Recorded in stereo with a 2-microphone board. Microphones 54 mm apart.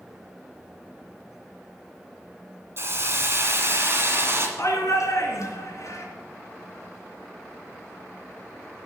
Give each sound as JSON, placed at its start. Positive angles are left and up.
{"t": 2.8, "sound": "a hiss", "side_deg": -45, "distance_m": 1.9}
{"t": 4.6, "sound": "a shout", "side_deg": 60, "distance_m": 3.5}